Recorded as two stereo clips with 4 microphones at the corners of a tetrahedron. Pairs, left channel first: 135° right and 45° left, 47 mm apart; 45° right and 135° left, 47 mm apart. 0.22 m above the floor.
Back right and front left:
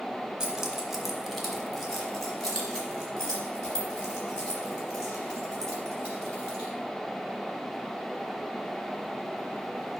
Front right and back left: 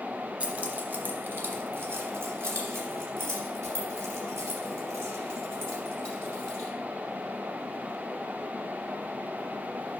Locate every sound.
0.4 s keys jangling: 105° left, 1.1 m; by 6.7 s 155° left, 5 m